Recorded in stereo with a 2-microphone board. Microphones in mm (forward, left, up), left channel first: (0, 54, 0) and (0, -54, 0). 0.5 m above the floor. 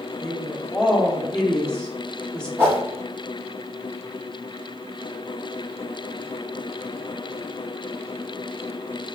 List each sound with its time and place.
0.2 s a woman speaking: 10° left (ahead or behind), 0.8 m
2.6 s a whoosh: 20° right (ahead or behind), 1.3 m